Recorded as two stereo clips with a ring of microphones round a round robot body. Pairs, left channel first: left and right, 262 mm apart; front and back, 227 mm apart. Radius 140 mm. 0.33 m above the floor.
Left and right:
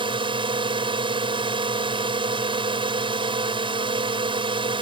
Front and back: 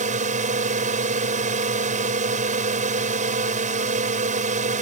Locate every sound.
0.0 s a drone: 150° right